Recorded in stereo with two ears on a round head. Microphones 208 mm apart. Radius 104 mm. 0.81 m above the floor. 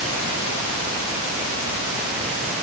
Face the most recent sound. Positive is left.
No sound to turn to.